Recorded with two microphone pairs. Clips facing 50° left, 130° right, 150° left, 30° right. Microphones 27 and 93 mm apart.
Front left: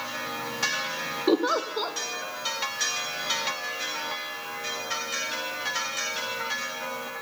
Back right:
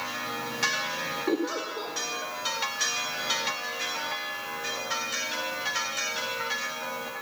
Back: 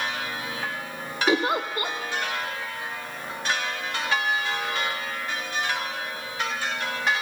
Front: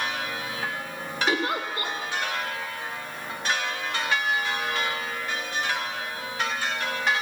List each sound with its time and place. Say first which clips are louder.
1.3 s a giggle: front left 7 dB, back 4 dB; 85° left, 0.8 m